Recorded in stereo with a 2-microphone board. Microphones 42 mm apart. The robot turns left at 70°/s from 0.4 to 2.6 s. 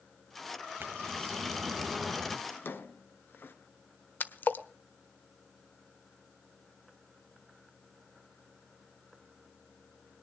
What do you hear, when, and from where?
0.8 s a bird: 85° right, 2 m; by 2.4 s 170° left, 2 m
2.5 s a drawer: 50° left (ahead or behind), 1.8 m; by 3.5 s 55° left (ahead or behind), 1.8 m
4.2 s a splash: 50° left (ahead or behind), 1.2 m